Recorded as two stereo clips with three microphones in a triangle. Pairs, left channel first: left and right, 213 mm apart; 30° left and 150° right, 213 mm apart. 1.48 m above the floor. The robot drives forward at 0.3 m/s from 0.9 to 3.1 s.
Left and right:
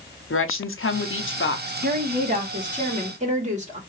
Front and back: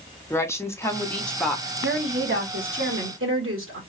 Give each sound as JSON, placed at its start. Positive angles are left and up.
{"t": 0.3, "sound": "a woman speaking", "azimuth_deg": 105, "distance_m": 0.7}
{"t": 1.8, "sound": "a woman speaking", "azimuth_deg": -135, "distance_m": 1.2}